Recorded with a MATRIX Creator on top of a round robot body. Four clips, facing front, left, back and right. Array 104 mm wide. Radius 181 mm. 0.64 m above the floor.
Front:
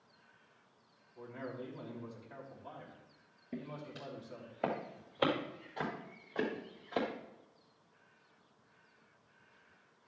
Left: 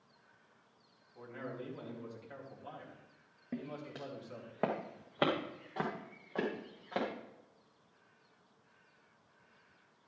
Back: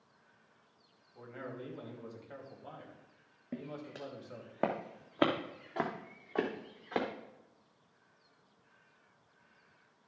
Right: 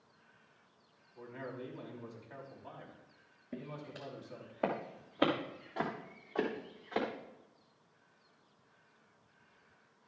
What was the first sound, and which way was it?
A man speaking, 140° left.